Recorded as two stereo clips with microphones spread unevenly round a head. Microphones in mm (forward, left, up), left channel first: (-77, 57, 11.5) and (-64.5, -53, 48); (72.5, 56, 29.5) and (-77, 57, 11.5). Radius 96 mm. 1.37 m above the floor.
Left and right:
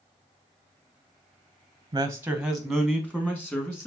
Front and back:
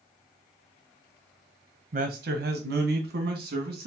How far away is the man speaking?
About 0.6 m.